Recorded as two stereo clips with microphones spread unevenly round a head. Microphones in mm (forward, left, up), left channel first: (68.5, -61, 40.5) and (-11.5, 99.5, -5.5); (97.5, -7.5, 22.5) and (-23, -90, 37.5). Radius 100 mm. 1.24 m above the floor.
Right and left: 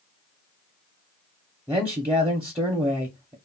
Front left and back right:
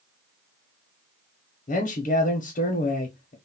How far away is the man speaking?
About 0.7 m.